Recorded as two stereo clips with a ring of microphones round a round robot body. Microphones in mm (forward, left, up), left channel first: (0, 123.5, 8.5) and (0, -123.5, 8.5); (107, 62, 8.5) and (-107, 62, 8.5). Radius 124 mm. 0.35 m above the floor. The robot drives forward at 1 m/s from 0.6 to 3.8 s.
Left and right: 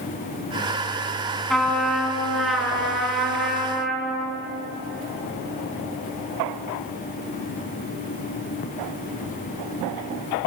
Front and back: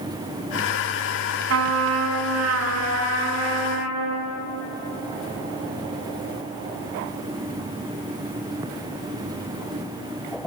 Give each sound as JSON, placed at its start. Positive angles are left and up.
{"t": 1.5, "sound": "a trumpet", "azimuth_deg": 180, "distance_m": 2.0}